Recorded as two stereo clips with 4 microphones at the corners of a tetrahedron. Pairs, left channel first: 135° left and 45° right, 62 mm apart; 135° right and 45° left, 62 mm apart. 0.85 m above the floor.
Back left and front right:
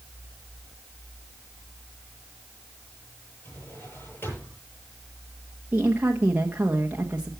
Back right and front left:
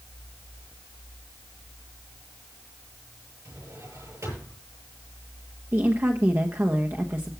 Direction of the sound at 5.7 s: 10° left.